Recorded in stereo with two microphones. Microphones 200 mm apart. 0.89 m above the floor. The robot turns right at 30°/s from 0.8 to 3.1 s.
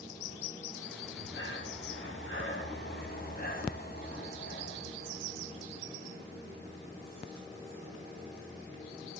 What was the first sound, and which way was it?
Breathing, 65° left.